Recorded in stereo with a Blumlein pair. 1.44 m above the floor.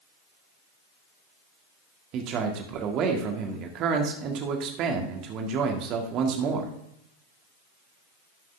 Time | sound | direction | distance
2.1 | a man speaking | 35° right | 1.7 m